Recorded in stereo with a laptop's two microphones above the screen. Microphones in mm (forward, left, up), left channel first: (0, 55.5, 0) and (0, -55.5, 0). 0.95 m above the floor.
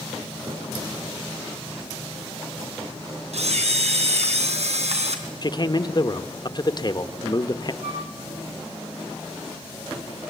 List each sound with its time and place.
3.3 s a camera shutter: 75° right (ahead or behind), 3.5 m
5.4 s a man speaking: 40° left (ahead or behind), 1.1 m
7.8 s a flute: 70° right (ahead or behind), 9.5 m